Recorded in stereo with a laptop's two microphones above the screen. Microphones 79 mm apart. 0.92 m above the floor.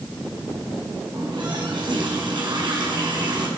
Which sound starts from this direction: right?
A running tap, at 1.1 s.